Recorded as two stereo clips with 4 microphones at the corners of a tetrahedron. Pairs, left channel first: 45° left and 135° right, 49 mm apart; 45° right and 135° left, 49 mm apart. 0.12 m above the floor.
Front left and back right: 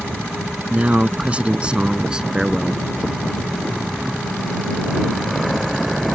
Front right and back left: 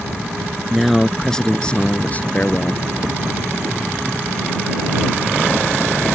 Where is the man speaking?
145° right; by 2.8 s 60° right.